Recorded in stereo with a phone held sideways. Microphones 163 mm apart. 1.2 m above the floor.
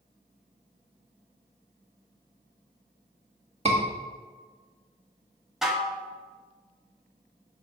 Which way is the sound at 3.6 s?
40° right (ahead or behind).